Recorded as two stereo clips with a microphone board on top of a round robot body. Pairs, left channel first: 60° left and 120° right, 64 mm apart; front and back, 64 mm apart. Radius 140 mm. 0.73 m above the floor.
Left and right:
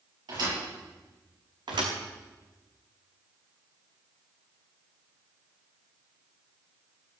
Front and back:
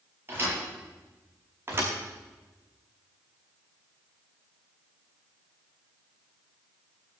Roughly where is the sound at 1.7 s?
Behind right.